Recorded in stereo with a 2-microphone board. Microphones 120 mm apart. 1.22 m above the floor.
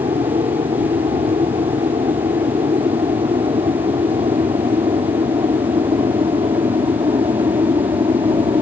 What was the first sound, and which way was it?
An aircraft, 50° right (ahead or behind).